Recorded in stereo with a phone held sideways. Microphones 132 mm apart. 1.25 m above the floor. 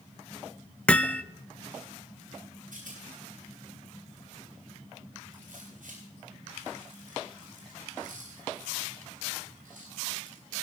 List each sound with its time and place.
0.9 s hammering: 10° left (ahead or behind), 0.6 m
2.7 s a rattle: 85° right, 10 m